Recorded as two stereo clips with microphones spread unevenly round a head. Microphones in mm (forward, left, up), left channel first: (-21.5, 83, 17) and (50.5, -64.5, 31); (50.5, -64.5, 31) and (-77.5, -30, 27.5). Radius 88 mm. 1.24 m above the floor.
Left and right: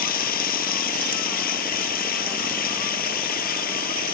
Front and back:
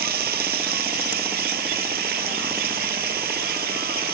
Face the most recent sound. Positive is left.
turn(degrees=155)